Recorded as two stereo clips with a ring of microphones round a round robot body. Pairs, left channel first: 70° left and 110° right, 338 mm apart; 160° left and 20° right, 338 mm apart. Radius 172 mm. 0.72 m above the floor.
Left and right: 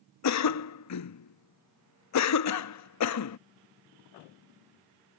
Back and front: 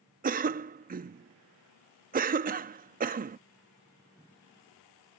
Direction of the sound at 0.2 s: 40° left.